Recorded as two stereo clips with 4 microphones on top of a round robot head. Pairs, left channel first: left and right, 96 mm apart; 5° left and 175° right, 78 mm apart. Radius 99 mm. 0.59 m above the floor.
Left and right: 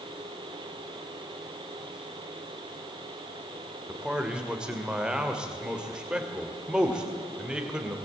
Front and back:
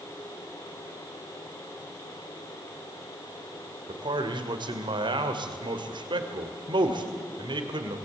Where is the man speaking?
170° right, 2.5 m.